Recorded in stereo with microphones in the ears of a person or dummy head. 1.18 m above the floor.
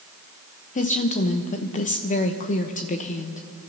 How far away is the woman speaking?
About 0.9 m.